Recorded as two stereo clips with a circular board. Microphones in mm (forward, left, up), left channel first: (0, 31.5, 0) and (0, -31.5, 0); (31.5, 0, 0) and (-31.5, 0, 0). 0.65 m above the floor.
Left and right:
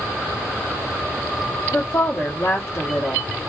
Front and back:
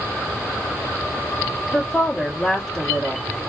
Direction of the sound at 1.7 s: 75° left.